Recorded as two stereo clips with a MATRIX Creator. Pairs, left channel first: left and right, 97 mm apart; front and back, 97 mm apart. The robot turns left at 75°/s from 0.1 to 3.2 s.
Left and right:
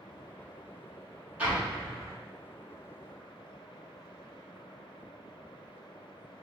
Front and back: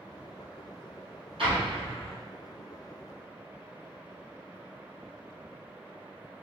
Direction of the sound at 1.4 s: 160° right.